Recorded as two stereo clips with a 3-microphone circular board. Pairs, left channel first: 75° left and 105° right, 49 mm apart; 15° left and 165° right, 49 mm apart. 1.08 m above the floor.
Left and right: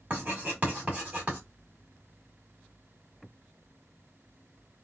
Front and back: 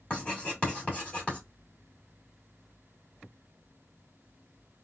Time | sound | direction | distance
0.1 | writing | 50° right | 2.5 m